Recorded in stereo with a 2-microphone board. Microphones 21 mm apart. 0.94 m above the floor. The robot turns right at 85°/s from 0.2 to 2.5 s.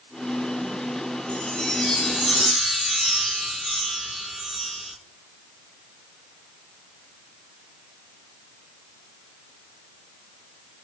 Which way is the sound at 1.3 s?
105° left.